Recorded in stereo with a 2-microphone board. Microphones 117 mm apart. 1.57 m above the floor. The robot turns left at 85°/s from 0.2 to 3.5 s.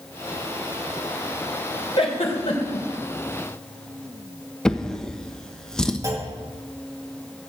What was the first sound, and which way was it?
A giggle, 50° left (ahead or behind).